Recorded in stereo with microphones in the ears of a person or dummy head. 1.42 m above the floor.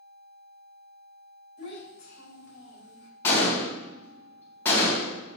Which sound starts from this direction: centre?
A gunshot, at 3.2 s.